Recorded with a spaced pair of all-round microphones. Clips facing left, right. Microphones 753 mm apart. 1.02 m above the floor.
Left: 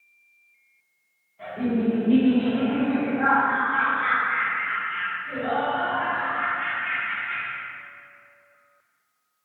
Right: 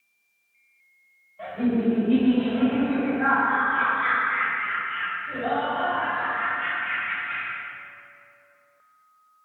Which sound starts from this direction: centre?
Laughter, at 1.4 s.